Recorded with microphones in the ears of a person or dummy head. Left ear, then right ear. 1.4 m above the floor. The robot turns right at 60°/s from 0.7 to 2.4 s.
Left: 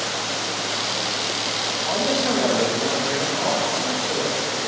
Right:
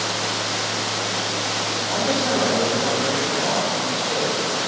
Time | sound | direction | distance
1.8 | a man speaking | 140° left | 2.5 m